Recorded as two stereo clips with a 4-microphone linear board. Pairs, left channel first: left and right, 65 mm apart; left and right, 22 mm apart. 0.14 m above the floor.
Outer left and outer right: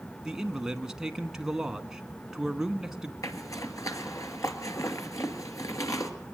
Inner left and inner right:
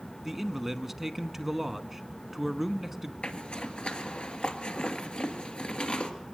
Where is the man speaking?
10° right (ahead or behind), 1.1 m.